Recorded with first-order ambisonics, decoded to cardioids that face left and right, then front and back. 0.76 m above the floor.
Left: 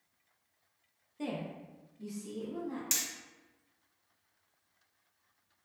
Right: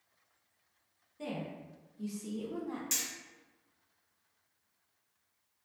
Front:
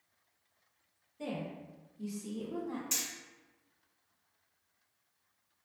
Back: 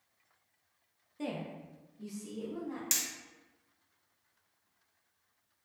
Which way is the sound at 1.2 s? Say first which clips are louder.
Left 1 dB, back 1 dB; 150° left.